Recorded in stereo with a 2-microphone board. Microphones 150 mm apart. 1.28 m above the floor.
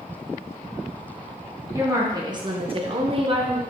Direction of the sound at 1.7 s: 20° right (ahead or behind).